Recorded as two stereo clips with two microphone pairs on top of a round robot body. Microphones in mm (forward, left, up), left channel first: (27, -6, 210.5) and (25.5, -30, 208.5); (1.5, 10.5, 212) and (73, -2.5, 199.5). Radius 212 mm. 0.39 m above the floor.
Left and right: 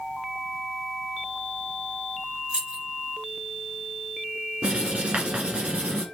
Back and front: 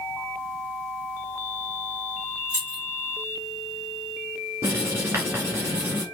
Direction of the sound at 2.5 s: 45° right.